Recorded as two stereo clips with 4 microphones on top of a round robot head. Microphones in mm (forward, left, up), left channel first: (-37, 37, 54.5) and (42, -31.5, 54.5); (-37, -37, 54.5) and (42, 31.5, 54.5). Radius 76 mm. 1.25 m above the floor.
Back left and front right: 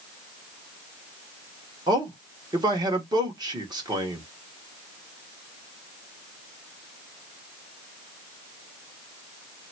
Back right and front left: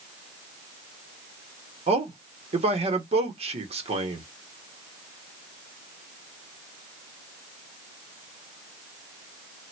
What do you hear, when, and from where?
1.9 s a man speaking: 15° left, 1.3 m